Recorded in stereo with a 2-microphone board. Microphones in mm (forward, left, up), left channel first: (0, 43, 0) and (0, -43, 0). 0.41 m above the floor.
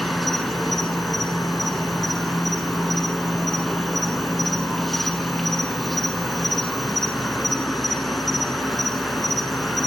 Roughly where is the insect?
Centre.